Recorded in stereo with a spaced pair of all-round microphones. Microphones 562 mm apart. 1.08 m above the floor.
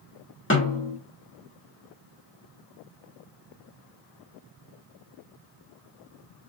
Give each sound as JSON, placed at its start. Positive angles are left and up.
{"t": 0.5, "sound": "a snare drum", "side_deg": 20, "distance_m": 2.0}